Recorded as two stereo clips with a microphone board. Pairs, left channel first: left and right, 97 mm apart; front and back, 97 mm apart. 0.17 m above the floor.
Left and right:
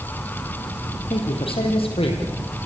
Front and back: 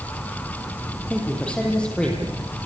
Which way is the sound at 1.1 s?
80° left.